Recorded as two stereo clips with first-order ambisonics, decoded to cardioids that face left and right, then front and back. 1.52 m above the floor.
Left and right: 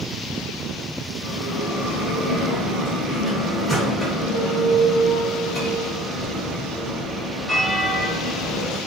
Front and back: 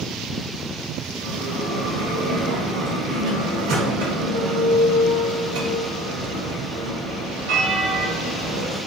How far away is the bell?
About 1.2 m.